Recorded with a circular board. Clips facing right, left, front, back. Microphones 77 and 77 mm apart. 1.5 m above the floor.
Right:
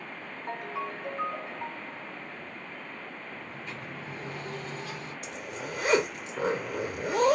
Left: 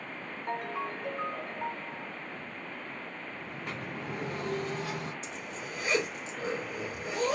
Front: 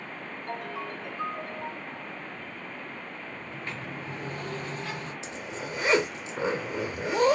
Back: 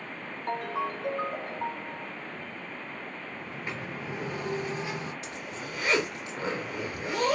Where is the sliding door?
105° left, 1.2 m.